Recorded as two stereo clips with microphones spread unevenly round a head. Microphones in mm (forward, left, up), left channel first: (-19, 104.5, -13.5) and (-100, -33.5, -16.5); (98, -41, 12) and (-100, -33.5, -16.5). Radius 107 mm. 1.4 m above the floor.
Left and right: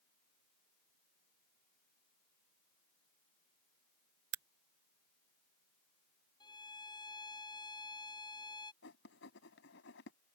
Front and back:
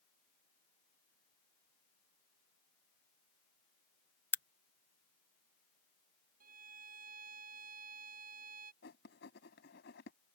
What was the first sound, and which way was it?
A crack, 85° right.